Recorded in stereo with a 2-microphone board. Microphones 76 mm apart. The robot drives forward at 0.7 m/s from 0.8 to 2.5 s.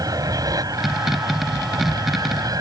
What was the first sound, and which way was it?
An aircraft, 50° right (ahead or behind).